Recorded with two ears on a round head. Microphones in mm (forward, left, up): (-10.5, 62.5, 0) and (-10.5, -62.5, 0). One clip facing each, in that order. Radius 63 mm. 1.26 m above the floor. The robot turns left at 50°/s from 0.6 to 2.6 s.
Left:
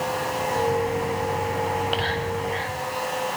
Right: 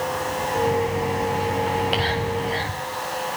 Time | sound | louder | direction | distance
1.7 | whispering | right 2 dB | 5° left (ahead or behind) | 9 m